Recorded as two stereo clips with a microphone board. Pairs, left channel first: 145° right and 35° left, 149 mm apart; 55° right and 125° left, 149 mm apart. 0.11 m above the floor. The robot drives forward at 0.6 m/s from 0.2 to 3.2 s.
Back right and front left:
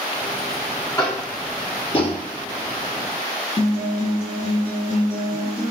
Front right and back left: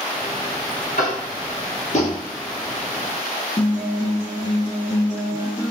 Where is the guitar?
110° right, 5.5 m.